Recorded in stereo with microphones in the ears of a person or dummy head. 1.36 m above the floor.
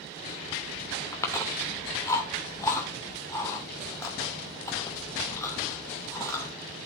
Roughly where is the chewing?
Centre.